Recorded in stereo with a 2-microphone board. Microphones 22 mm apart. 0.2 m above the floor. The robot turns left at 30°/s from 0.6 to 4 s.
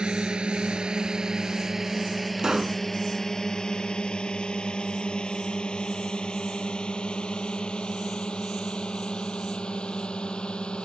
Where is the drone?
45° right (ahead or behind); by 10.8 s 50° left (ahead or behind).